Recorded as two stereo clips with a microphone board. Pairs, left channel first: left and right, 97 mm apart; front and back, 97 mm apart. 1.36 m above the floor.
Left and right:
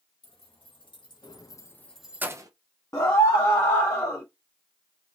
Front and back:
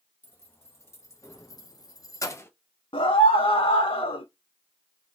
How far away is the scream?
About 0.6 m.